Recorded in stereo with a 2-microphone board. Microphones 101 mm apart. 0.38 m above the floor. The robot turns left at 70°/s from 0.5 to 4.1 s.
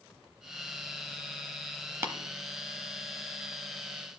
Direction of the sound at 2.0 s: 25° right (ahead or behind).